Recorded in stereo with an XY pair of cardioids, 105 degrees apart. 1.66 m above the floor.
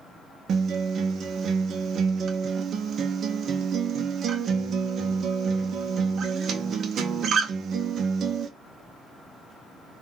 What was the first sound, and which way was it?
A guitar, 60° right.